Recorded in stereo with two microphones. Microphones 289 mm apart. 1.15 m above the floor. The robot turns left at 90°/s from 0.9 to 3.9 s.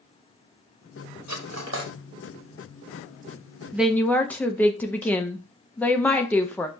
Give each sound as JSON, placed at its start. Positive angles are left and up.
{"t": 1.3, "sound": "cutlery clinking", "side_deg": -70, "distance_m": 0.8}
{"t": 3.7, "sound": "a woman speaking", "side_deg": -10, "distance_m": 0.6}